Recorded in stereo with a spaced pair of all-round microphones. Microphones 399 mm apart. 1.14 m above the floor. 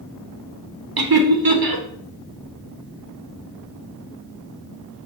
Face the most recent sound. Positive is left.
turn(degrees=-60)  # may be behind; listen again after turning